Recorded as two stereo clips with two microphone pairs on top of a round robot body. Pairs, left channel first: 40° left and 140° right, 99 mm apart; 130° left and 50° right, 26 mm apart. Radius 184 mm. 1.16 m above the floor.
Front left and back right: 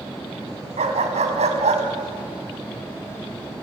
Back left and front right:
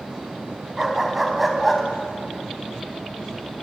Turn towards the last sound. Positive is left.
turn(degrees=-145)